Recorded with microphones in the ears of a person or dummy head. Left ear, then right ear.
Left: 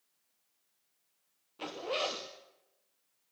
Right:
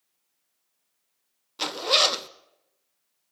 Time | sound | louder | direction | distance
1.6 | a zipper | right 13 dB | 60° right (ahead or behind) | 0.8 m